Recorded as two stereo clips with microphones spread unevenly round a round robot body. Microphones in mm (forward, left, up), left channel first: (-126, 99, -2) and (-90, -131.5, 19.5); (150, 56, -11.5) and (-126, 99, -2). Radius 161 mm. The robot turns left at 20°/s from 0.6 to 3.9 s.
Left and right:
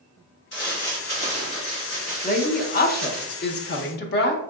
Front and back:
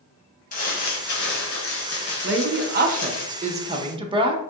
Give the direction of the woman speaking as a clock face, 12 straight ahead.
8 o'clock.